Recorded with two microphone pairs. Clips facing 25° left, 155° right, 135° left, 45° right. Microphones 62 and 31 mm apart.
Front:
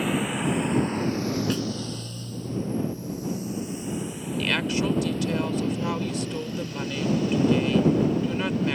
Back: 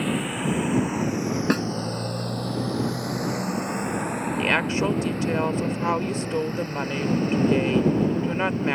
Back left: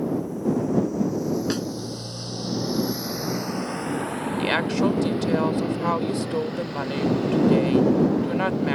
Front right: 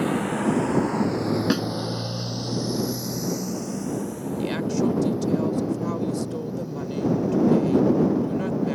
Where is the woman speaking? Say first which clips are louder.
Back 2 dB, back left 2 dB; 155° left.